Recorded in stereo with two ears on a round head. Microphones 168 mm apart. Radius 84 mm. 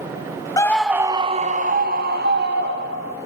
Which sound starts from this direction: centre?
A scream, at 0.6 s.